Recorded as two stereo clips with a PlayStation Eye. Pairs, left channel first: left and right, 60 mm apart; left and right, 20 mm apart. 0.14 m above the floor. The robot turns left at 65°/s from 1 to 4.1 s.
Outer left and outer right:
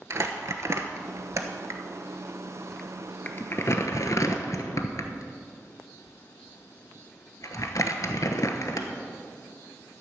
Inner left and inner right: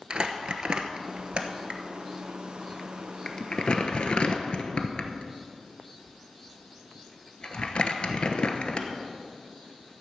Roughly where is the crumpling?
Right.